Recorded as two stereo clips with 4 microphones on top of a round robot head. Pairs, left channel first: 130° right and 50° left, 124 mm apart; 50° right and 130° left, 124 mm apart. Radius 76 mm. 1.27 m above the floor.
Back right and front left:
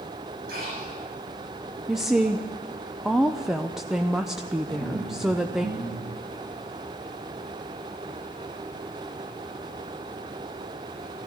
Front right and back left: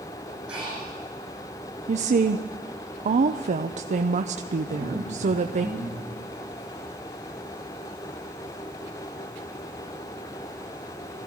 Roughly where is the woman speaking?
Behind left.